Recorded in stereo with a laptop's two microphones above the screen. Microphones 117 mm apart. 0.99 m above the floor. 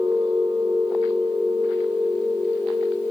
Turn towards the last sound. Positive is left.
turn(degrees=-25)  # may be behind; listen again after turning